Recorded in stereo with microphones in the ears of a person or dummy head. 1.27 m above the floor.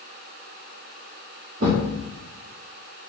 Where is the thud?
45° right (ahead or behind), 1.2 m.